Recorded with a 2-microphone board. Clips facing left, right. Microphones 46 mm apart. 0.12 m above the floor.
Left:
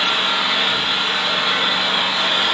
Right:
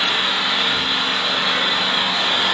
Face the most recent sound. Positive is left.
turn(degrees=15)  # may be behind; listen again after turning